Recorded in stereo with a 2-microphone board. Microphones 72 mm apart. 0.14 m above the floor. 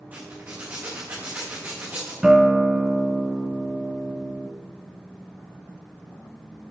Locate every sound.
0.1 s a zipper: 25° right (ahead or behind), 4.5 m
2.2 s a guitar: 10° right (ahead or behind), 0.7 m